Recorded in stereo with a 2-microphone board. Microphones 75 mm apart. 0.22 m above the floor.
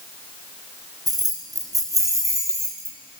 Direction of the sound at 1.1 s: 60° right (ahead or behind).